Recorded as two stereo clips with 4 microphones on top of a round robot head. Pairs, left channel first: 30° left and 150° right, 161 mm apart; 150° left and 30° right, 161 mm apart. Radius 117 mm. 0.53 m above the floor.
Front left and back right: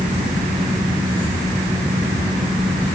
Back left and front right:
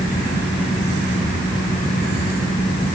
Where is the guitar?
I don't hear a guitar.